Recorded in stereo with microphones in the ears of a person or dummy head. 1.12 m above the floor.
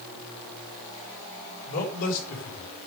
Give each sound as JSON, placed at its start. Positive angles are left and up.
{"t": 1.7, "sound": "a man speaking", "side_deg": 50, "distance_m": 4.5}